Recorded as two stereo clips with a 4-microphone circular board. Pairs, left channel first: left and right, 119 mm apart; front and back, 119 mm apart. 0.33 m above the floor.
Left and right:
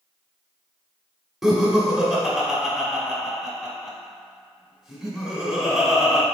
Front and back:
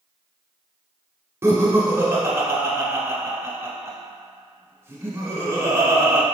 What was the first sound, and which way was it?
Laughter, 170° right.